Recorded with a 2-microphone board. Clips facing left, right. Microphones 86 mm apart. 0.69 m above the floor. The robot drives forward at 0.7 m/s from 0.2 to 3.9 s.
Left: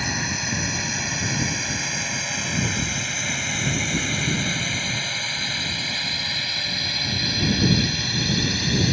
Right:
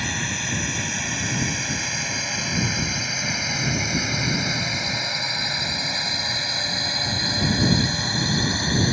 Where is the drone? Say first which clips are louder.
Left 1 dB; 5° left (ahead or behind); by 8.9 s 30° right (ahead or behind).